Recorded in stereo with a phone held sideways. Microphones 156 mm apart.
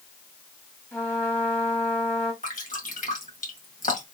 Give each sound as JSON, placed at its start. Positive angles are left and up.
{"t": 0.9, "sound": "a trumpet", "side_deg": 15, "distance_m": 1.4}
{"t": 2.4, "sound": "dripping", "side_deg": 60, "distance_m": 1.6}